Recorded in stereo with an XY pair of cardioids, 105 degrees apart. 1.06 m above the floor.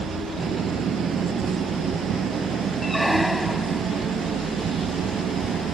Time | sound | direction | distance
0.0 | an engine running | 60° right | ?
2.8 | a squeak | straight ahead | ?